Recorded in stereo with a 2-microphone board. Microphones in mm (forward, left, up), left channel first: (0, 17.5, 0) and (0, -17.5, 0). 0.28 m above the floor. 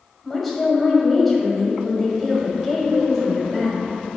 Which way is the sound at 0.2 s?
5° left (ahead or behind).